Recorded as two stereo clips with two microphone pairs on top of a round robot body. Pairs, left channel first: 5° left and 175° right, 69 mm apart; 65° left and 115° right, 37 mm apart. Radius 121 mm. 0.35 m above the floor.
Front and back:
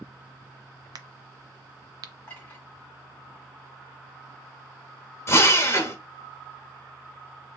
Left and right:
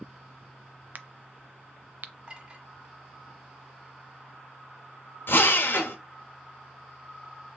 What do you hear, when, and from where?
0.9 s a crack: 150° right, 0.5 m
2.3 s a clink: 65° right, 1.5 m
5.3 s a drill: 50° left, 1.0 m